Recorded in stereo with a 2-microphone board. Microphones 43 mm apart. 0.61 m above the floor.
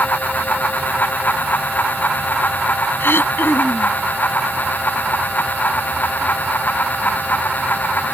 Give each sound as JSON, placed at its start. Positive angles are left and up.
{"t": 3.0, "sound": "throat clearing", "side_deg": 65}